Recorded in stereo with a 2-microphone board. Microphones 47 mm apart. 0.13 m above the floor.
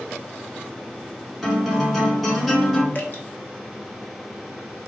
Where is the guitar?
Centre (ahead or behind), 1.0 m.